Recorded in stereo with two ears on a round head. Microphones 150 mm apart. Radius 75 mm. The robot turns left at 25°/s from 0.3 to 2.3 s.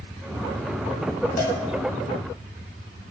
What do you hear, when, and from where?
1.4 s a cowbell: 55° left (ahead or behind), 2.5 m; by 1.6 s 50° left (ahead or behind), 2.5 m